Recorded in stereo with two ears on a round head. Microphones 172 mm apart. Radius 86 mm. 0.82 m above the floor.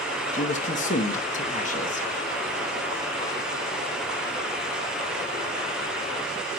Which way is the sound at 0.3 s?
40° left (ahead or behind).